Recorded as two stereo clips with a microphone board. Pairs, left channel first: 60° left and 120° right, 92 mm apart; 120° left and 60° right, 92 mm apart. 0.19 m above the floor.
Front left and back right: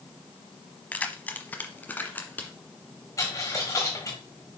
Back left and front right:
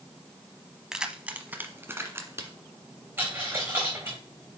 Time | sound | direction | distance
0.9 | keys jangling | 15° left | 0.8 m
3.2 | a dropped coin | 5° left | 4 m